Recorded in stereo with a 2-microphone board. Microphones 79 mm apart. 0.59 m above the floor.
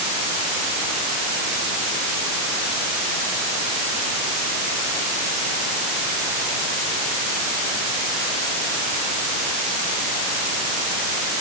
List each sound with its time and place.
Only background noise.